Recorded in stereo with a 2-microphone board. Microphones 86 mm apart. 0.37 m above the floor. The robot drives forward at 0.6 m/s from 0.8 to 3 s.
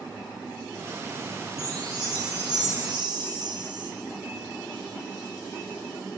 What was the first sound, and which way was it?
A chime, 50° right (ahead or behind).